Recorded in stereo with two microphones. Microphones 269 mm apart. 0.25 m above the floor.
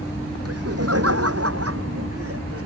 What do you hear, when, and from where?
0.5 s laughter: 60° right (ahead or behind); by 2.6 s 55° right (ahead or behind)